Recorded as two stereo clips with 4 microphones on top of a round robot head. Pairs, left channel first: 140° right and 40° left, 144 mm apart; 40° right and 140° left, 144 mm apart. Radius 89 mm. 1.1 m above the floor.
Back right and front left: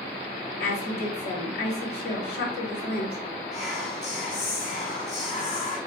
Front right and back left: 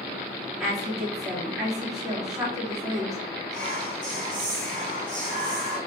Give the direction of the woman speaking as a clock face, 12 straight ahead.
4 o'clock.